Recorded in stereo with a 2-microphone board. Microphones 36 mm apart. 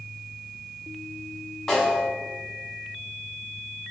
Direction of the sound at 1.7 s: 15° left (ahead or behind).